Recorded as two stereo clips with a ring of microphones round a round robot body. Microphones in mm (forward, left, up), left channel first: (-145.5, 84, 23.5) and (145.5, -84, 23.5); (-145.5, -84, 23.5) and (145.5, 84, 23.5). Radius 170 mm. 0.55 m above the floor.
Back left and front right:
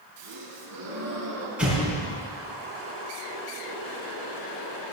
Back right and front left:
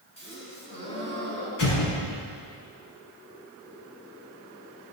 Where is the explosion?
115° right, 6.5 m.